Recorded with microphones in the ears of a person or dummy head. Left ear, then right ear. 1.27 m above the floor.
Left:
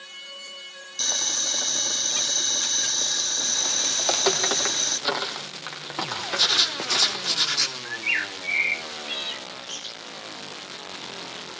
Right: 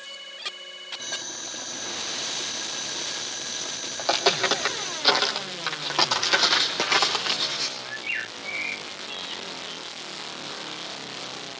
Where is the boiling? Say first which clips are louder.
Left 11 dB; 70° left (ahead or behind), 1.6 m.